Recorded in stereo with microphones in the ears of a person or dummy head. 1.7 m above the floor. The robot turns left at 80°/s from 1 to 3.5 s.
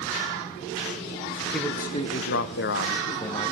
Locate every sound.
1.5 s a man speaking: 175° right, 0.9 m; by 3.5 s 25° left, 0.9 m